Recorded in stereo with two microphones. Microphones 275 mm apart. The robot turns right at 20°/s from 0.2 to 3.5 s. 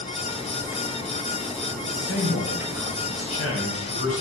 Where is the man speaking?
80° left, 3.5 m; by 4.2 s 115° left, 3.5 m.